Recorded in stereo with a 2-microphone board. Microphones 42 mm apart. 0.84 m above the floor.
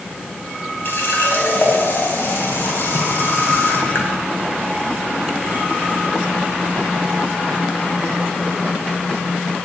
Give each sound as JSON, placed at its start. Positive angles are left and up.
{"t": 0.8, "sound": "a running tap", "side_deg": 60, "distance_m": 4.0}